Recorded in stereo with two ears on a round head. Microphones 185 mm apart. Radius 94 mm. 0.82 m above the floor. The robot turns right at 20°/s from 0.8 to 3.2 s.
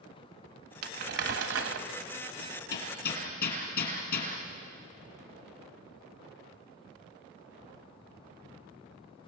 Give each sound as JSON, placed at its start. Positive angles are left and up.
{"t": 0.8, "sound": "crumpling", "side_deg": -50, "distance_m": 1.7}
{"t": 2.4, "sound": "hammering", "side_deg": 65, "distance_m": 4.5}